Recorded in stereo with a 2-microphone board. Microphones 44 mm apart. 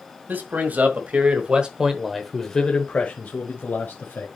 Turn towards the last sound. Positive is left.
turn(degrees=55)  # may be behind; listen again after turning